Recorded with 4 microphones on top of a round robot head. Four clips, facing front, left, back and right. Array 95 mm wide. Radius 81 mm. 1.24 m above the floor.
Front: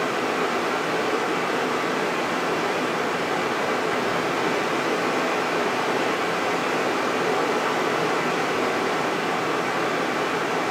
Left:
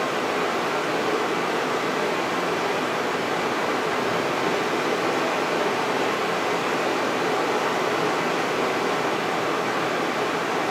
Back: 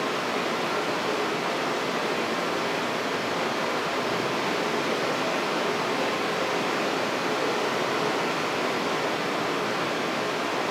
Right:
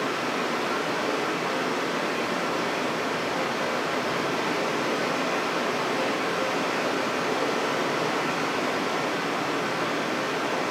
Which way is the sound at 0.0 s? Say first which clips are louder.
Left 3 dB, front 4 dB; 45° left.